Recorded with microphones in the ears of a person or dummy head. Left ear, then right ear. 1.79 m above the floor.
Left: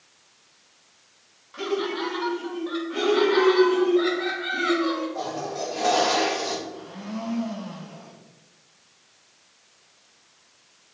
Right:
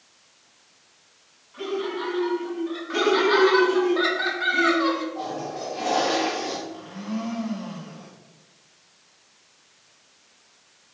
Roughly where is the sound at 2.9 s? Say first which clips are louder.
Right 1 dB; right.